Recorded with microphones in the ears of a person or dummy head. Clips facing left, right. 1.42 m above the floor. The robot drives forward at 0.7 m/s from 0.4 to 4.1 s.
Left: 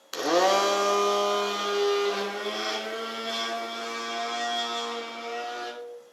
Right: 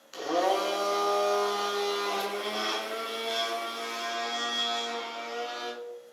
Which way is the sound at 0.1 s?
70° left (ahead or behind).